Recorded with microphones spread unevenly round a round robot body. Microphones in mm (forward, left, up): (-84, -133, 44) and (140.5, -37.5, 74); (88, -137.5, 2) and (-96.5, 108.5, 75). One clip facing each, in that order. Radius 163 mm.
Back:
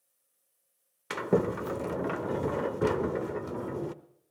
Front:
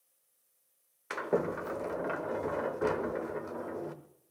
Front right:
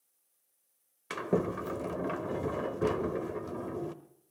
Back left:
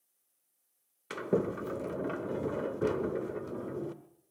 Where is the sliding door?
130° right, 0.8 m.